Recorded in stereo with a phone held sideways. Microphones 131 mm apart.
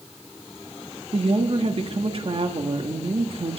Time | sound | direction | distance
1.1 | a woman speaking | 50° right (ahead or behind) | 1.4 m